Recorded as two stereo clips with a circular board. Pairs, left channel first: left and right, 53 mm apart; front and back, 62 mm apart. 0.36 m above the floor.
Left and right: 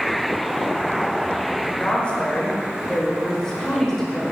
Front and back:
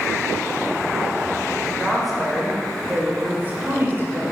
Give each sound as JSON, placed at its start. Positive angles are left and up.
{"t": 1.6, "sound": "a woman speaking", "azimuth_deg": 75, "distance_m": 1.5}